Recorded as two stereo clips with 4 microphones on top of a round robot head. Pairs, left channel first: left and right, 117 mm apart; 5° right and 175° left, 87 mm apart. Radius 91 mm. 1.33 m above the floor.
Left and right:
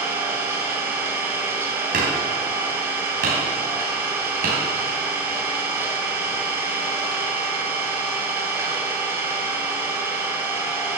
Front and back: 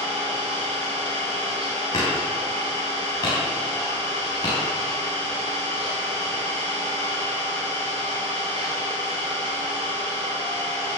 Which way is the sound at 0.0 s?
160° right.